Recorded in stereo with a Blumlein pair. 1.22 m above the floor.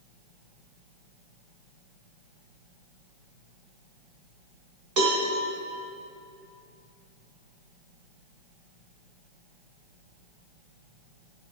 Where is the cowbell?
35° right, 3 m.